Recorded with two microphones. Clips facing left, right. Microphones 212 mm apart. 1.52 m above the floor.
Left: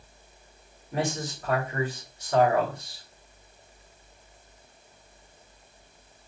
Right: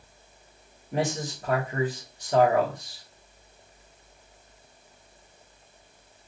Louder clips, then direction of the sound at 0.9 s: Right 1 dB; 30° right (ahead or behind).